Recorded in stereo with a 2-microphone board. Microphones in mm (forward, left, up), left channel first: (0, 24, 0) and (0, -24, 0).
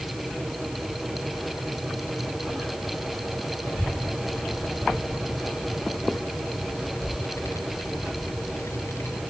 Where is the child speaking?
85° left; by 9.2 s 70° left (ahead or behind).